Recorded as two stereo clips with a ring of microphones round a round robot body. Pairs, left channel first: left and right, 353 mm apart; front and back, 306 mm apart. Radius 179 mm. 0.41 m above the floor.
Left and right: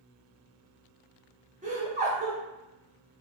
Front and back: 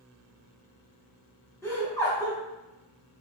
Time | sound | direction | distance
1.6 | laughter | 65° right | 0.7 m